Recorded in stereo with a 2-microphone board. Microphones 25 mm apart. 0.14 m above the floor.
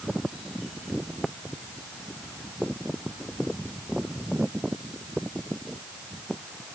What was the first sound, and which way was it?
Only background noise.